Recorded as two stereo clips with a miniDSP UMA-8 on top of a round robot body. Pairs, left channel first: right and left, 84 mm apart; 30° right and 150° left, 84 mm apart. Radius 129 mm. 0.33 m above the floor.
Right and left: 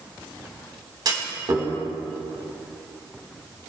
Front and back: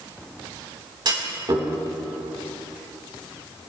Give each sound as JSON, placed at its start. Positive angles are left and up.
{"t": 1.1, "sound": "a clunk", "azimuth_deg": 125, "distance_m": 3.5}